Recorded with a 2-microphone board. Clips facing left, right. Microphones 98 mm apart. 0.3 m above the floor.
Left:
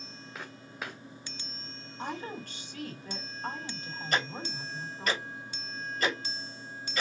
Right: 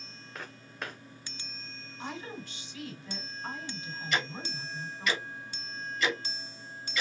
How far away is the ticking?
About 1.3 m.